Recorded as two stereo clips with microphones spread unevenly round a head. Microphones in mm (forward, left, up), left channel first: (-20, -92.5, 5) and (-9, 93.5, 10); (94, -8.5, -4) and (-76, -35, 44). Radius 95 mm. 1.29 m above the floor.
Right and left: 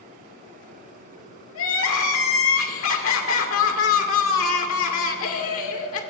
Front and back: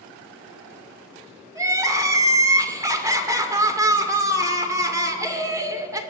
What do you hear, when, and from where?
1.6 s crying: 95° right, 2 m